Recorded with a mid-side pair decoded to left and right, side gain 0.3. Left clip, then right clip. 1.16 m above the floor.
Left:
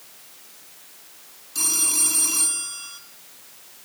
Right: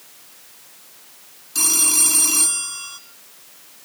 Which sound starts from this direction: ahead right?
A phone ringing, at 1.6 s.